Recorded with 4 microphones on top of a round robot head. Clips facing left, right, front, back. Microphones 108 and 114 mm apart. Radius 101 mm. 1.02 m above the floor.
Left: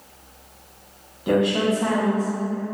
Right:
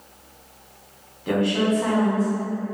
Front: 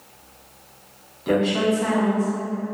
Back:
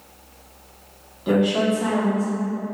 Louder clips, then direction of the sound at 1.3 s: Left 1 dB, back 1 dB; 110° left.